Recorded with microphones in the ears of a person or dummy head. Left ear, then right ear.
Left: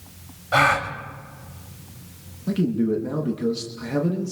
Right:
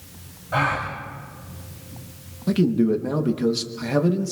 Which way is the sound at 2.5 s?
15° right (ahead or behind).